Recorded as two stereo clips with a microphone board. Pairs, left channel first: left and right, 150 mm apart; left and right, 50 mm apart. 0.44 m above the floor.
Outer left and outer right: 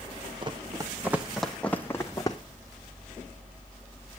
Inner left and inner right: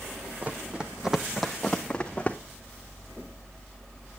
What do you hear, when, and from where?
0.4 s running footsteps: 35° right (ahead or behind), 1.1 m; by 2.4 s 25° left (ahead or behind), 1.3 m